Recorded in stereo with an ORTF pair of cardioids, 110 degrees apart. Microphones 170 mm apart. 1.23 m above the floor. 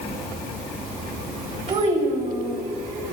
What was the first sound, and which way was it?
A child speaking, 40° right.